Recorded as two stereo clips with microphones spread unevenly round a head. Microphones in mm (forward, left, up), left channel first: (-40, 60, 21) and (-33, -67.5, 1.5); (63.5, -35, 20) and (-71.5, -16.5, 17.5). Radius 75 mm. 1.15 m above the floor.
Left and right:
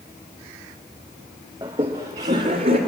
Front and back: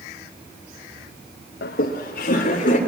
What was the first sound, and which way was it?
Laughter, 15° right.